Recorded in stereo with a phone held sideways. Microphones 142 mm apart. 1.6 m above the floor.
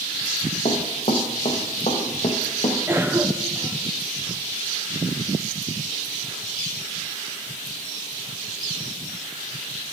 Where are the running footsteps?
50° left (ahead or behind), 2.5 m.